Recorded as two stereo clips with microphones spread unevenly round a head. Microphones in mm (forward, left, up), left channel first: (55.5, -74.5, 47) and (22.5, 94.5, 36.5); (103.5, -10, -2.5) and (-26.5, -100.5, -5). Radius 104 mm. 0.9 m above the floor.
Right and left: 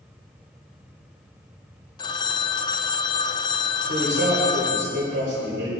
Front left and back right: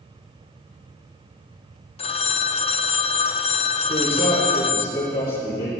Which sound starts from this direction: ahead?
A phone ringing, at 2.0 s.